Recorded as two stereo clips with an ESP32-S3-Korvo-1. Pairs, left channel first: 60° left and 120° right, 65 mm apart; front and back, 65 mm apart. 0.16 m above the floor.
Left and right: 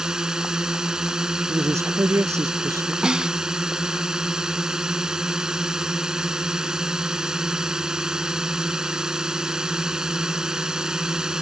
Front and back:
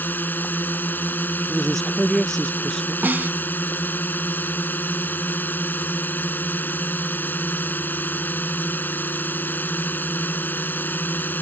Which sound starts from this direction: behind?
A snare drum, at 3.0 s.